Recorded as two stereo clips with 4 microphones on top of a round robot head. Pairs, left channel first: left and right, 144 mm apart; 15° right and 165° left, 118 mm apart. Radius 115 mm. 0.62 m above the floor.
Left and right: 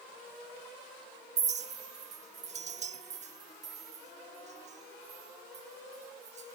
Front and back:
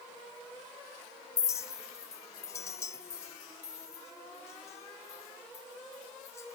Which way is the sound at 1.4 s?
70° right.